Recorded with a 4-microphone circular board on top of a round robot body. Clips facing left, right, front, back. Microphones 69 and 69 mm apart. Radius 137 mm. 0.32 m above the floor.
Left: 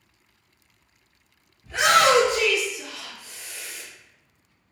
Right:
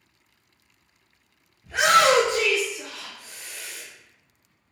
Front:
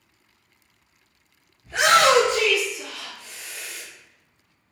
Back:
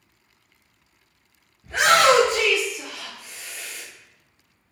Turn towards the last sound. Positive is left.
turn(degrees=-80)